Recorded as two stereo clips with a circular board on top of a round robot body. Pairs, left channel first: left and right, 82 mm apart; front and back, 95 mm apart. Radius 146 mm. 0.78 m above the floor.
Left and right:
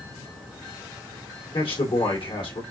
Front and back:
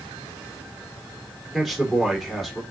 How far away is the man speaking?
About 2 m.